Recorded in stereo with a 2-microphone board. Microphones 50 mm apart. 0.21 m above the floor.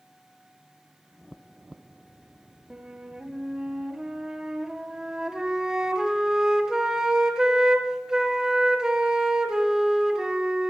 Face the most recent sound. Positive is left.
turn(degrees=-10)  # may be behind; listen again after turning